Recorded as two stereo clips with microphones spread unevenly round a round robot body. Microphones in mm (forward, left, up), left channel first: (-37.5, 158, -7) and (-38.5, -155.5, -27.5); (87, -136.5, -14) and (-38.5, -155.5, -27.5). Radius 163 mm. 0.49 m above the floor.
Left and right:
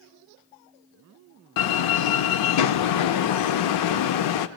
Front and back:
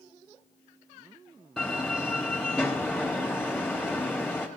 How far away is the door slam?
About 0.7 m.